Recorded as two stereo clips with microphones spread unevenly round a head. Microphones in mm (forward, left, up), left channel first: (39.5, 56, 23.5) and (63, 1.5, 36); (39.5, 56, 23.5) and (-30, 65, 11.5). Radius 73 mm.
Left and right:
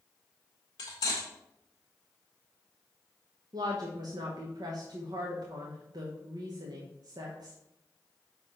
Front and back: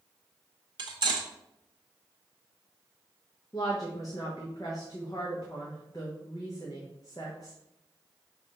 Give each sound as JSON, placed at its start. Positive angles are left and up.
{"t": 0.8, "sound": "cutlery clinking", "azimuth_deg": 165, "distance_m": 1.3}
{"t": 3.5, "sound": "a woman speaking", "azimuth_deg": -75, "distance_m": 0.8}